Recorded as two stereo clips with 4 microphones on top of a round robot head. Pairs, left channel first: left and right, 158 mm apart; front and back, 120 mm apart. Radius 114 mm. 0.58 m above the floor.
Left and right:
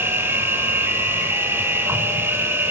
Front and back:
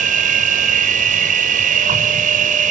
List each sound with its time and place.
0.0 s an insect: 170° right, 1.4 m